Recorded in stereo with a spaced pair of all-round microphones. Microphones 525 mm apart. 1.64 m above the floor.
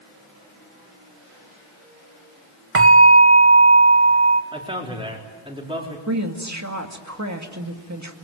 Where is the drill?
I don't hear a drill.